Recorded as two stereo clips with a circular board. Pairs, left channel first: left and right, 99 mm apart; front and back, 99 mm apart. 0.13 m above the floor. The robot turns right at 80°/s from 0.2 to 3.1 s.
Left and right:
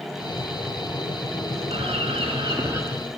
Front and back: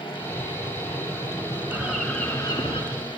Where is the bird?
115° right, 8 m; by 2.8 s 30° right, 8 m.